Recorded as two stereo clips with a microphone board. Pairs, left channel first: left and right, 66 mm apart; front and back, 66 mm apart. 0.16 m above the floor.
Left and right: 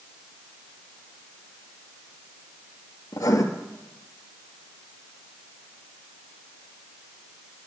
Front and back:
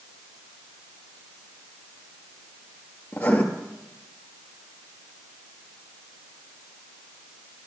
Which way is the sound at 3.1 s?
65° left.